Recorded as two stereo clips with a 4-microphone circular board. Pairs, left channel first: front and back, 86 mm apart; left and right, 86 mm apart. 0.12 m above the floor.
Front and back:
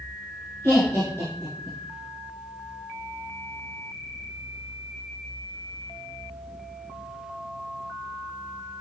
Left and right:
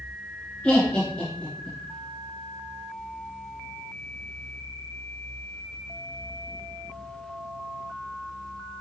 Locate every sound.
0.6 s laughter: 25° left, 1.4 m